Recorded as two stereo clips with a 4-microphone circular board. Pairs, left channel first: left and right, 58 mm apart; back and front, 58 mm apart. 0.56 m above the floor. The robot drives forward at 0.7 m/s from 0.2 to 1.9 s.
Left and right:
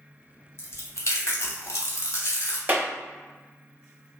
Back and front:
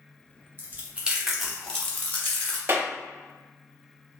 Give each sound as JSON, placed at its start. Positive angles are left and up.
{"t": 0.6, "sound": "chewing", "azimuth_deg": 50, "distance_m": 1.0}
{"t": 2.7, "sound": "a clap", "azimuth_deg": -40, "distance_m": 0.7}